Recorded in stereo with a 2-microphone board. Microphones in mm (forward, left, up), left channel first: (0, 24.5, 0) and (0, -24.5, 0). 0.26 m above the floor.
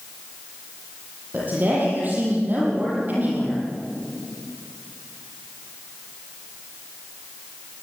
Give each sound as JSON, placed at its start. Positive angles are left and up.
{"t": 1.3, "sound": "a woman speaking", "side_deg": -40, "distance_m": 7.5}